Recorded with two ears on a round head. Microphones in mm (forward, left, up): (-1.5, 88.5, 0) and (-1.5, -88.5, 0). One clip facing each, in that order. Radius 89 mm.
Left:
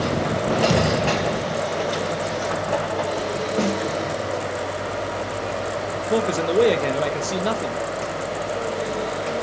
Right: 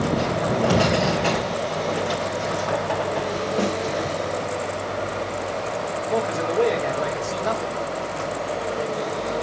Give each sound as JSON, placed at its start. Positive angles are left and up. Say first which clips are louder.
{"t": 0.7, "sound": "a thud", "louder": "even", "side_deg": 30, "distance_m": 4.5}
{"t": 3.6, "sound": "a snare drum", "louder": "left 2 dB", "side_deg": 25, "distance_m": 3.0}
{"t": 6.1, "sound": "a man speaking", "louder": "left 4 dB", "side_deg": 45, "distance_m": 1.4}